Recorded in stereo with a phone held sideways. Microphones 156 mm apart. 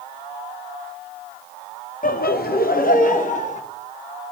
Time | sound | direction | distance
2.0 | laughter | 55° left (ahead or behind) | 0.6 m